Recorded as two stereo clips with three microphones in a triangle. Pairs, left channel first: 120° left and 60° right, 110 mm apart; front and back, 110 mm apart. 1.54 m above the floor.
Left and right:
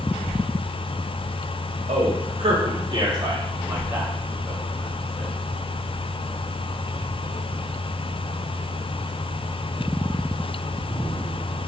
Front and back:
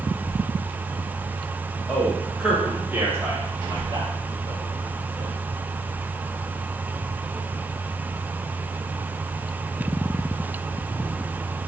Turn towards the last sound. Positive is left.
turn(degrees=-160)